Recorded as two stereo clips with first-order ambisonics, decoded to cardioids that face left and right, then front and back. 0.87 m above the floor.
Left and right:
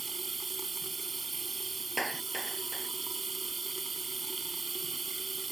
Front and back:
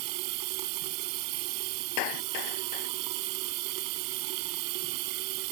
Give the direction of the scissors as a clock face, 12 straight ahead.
No scissors in this recording.